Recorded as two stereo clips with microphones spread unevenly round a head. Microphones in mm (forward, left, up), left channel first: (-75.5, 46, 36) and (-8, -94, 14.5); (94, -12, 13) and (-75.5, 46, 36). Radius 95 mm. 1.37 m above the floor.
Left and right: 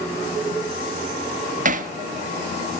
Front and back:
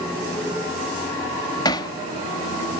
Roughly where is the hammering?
Right.